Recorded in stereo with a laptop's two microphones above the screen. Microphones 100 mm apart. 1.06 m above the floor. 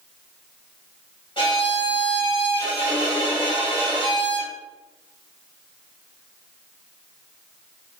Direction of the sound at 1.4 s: 60° left (ahead or behind).